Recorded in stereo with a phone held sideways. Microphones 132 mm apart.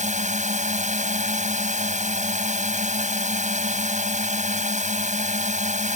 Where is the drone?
65° right (ahead or behind).